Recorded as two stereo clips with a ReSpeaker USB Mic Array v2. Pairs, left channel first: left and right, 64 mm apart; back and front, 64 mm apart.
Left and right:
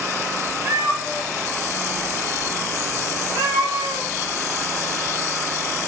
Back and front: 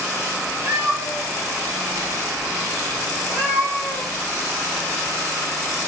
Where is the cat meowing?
50° right, 3 m; by 4.1 s 90° right, 3.5 m.